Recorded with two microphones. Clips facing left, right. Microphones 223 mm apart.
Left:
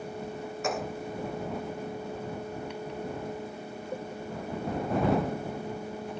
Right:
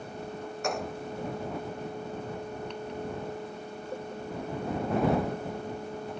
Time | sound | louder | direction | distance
0.6 | a gunshot | even | centre (ahead or behind) | ?